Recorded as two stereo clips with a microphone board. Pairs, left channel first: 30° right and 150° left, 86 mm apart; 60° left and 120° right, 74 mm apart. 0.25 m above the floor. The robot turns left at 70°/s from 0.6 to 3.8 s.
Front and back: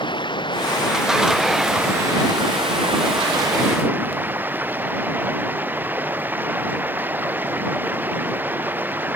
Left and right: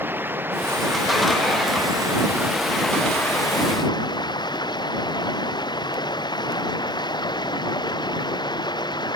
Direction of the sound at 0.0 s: 55° right.